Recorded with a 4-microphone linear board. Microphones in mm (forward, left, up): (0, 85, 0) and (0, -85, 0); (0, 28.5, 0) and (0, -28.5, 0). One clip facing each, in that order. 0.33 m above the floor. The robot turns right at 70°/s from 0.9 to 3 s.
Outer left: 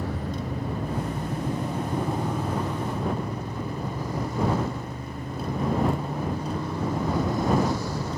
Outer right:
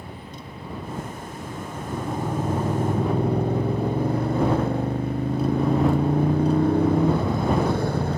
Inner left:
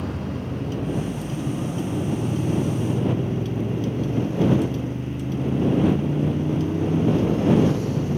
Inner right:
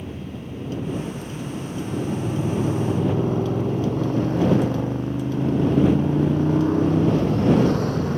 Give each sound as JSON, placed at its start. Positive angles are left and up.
{"t": 0.0, "sound": "a motorcycle", "azimuth_deg": 90}